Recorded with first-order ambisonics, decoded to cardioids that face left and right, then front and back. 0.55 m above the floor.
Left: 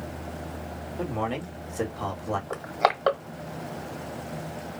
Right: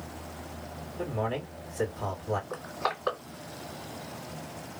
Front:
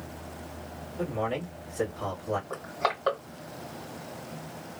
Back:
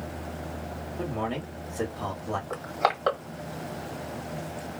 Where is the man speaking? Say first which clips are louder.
Left 2 dB, front 2 dB; 105° left, 1.7 m.